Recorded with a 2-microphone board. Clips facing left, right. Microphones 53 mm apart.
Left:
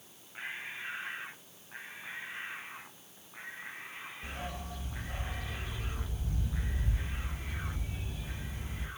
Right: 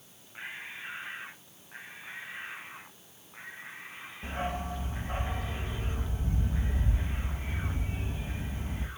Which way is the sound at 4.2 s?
35° right (ahead or behind).